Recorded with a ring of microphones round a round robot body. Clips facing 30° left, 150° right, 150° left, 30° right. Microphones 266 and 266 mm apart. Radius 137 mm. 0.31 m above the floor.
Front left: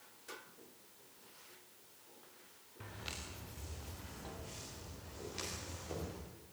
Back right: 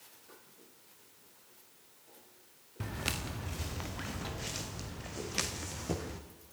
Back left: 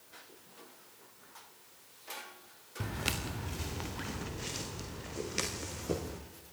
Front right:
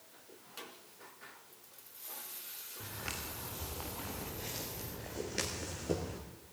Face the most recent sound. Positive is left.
turn(degrees=-125)